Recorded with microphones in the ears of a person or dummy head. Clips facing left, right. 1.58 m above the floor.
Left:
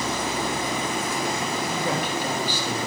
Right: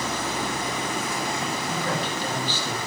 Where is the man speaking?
15° left (ahead or behind), 3.5 m.